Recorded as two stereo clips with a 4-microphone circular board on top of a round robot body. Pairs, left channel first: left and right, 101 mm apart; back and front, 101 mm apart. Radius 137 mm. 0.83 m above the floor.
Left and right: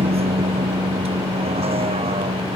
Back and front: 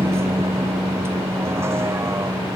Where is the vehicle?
65° right.